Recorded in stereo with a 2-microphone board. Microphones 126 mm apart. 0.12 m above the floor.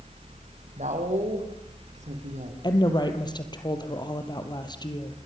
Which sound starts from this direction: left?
A woman speaking, at 2.6 s.